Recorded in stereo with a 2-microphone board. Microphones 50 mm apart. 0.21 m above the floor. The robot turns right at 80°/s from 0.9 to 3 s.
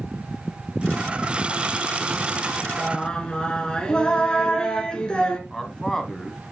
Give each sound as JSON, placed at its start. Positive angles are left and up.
{"t": 2.8, "sound": "singing", "side_deg": 0, "distance_m": 1.4}
{"t": 5.5, "sound": "a man speaking", "side_deg": 10, "distance_m": 1.2}